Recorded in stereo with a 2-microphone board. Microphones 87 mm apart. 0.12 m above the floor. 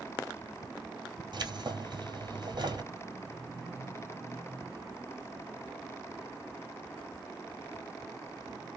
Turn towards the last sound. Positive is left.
turn(degrees=-60)  # may be behind; listen again after turning